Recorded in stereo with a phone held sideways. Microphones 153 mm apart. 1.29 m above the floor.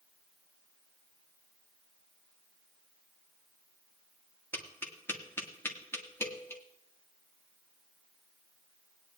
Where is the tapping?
15° left (ahead or behind), 1.6 m.